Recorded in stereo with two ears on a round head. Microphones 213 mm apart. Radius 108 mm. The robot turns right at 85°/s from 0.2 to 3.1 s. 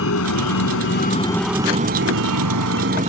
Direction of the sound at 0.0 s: 60° left (ahead or behind).